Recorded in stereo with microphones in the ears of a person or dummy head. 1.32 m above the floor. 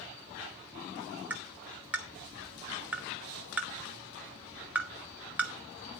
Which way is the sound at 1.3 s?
5° right (ahead or behind).